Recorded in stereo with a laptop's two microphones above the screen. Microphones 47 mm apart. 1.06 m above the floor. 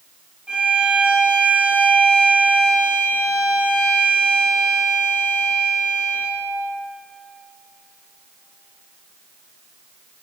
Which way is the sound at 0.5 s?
20° right (ahead or behind).